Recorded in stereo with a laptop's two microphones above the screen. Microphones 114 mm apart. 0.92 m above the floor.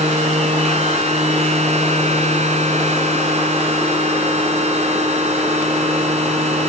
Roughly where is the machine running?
Right.